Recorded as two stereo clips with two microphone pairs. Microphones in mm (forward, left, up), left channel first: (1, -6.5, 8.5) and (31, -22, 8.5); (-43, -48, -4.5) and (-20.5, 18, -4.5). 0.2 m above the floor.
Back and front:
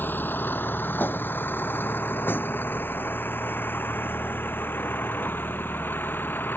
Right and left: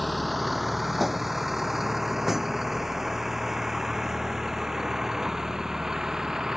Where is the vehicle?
160° left; by 6.6 s 155° left.